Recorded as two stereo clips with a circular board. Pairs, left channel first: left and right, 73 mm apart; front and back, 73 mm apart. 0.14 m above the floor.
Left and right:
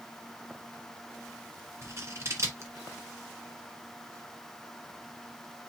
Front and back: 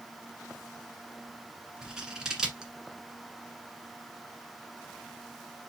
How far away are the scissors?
About 1.4 m.